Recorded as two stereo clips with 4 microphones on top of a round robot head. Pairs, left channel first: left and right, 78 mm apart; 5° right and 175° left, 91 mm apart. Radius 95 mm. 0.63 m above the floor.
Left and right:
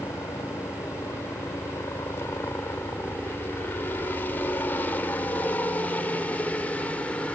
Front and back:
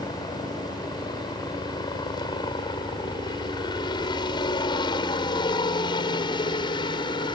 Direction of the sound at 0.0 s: 35° left.